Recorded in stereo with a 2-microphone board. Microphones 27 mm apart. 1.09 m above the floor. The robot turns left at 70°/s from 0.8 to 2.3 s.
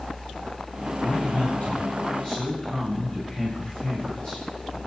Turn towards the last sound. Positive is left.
turn(degrees=40)